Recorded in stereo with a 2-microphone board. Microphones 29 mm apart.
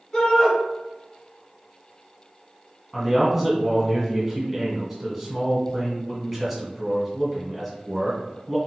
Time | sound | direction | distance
0.1 | a shout | 25° left (ahead or behind) | 1.2 m
2.9 | a man speaking | 5° right (ahead or behind) | 1.2 m